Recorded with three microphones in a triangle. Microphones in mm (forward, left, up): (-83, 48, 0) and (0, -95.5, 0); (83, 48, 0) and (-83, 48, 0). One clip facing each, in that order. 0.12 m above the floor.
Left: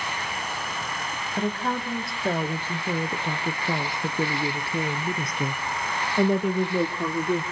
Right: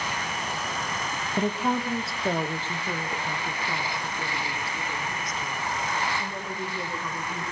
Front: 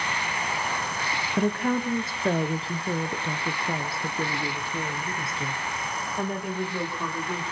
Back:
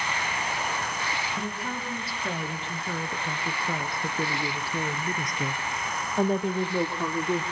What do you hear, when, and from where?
1.4 s a woman speaking: 10° left, 1.9 m; by 7.4 s 120° left, 3.5 m